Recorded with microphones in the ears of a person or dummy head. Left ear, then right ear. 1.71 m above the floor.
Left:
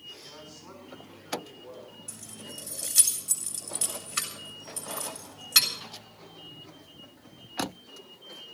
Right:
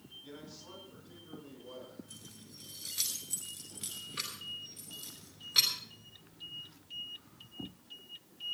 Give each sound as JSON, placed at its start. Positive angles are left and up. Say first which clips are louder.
{"t": 0.2, "sound": "a man speaking", "louder": "left 4 dB", "side_deg": 45, "distance_m": 7.0}
{"t": 2.1, "sound": "keys jangling", "louder": "left 9 dB", "side_deg": 45, "distance_m": 3.0}